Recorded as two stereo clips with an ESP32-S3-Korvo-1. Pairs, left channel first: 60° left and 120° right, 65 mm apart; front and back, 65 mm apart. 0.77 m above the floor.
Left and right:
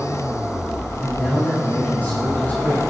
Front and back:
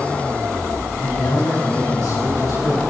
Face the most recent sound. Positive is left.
turn(degrees=0)